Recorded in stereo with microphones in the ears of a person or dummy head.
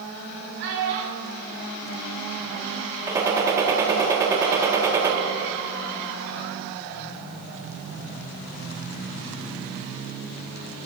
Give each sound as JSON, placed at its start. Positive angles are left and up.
{"t": 0.6, "sound": "a child speaking", "side_deg": -70, "distance_m": 4.5}
{"t": 3.1, "sound": "a gunshot", "side_deg": -15, "distance_m": 1.9}